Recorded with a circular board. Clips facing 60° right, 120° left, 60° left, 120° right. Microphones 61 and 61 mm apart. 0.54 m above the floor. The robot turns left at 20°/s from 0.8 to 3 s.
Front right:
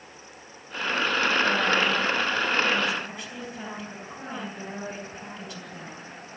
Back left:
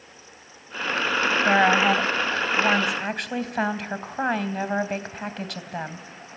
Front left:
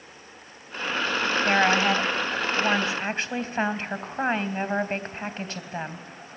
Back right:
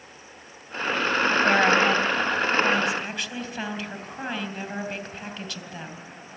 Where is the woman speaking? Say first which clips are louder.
Back left 5 dB, even; 145° left, 3 m; by 6.1 s 115° left, 3 m.